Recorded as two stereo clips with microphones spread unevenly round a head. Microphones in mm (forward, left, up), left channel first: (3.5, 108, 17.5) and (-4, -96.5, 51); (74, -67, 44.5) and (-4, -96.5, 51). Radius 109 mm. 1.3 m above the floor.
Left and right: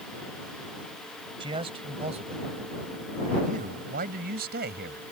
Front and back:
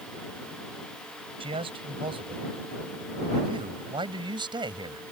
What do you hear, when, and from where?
1.4 s a man speaking: 160° right; by 5.0 s 135° right